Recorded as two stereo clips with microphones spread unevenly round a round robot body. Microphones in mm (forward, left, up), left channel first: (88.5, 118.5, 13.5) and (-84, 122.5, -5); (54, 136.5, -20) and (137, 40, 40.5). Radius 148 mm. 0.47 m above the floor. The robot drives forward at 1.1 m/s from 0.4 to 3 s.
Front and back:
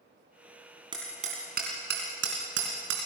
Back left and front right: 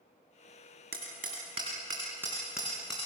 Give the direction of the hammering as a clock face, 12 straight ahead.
4 o'clock.